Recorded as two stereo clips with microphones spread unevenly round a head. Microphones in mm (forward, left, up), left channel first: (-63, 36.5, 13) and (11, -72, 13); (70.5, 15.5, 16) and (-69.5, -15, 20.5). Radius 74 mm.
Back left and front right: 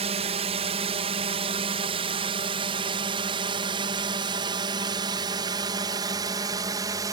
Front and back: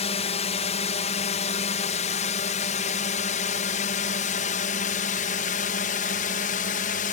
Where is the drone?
20° right; by 7.1 s 5° left.